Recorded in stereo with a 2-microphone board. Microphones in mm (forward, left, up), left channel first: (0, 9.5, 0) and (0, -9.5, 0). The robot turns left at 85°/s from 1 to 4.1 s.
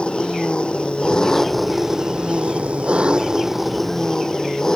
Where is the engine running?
50° left; by 4.8 s 150° left.